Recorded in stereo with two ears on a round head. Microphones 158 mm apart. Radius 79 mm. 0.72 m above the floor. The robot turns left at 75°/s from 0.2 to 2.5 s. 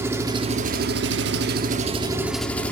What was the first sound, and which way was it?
An engine running, 15° right.